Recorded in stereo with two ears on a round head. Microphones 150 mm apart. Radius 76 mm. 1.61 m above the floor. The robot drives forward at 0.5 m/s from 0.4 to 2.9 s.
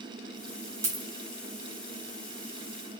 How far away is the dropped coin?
About 1.1 m.